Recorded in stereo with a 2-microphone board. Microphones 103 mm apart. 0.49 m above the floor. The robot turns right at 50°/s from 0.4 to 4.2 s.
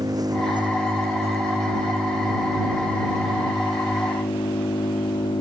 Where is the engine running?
140° right; by 5.4 s 50° left.